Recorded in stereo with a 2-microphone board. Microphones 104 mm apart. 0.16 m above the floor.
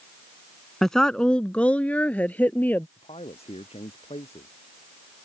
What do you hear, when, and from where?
0.8 s a woman speaking: 5° left (ahead or behind); by 2.9 s 15° left (ahead or behind)
3.0 s a man speaking: 70° left (ahead or behind)